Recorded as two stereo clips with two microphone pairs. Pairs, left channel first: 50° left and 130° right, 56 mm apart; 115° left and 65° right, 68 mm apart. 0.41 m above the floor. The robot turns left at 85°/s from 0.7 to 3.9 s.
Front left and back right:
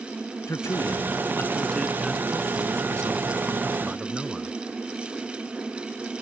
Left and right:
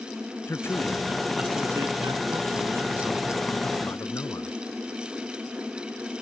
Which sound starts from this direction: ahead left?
A man speaking, at 0.5 s.